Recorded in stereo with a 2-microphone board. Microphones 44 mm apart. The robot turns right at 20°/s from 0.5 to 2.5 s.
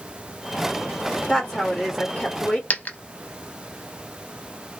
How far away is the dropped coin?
About 0.6 m.